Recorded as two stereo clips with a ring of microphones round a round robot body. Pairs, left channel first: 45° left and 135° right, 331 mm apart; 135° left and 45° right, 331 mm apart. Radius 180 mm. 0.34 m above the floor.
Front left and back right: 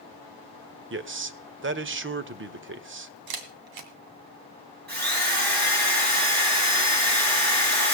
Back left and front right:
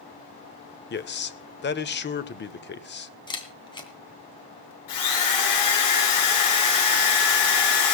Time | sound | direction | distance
0.9 | a man speaking | 175° right | 1.3 m
3.3 | a camera shutter | 150° right | 2 m
4.9 | a drill | 165° left | 7.5 m